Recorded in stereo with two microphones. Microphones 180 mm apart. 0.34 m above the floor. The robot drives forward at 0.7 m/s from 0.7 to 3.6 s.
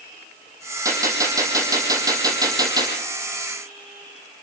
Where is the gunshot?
20° right (ahead or behind), 8 m.